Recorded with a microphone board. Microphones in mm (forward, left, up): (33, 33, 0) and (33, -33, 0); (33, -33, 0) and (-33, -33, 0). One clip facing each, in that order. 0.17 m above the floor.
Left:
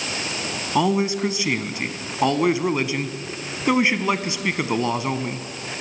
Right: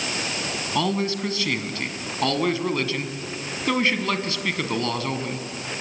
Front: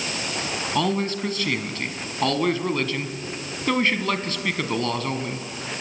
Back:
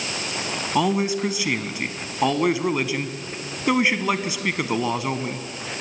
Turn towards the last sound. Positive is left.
turn(degrees=125)